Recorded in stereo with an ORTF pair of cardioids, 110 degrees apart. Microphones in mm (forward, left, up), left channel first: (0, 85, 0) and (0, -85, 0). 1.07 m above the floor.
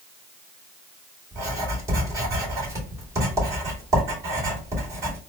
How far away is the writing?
About 2.5 m.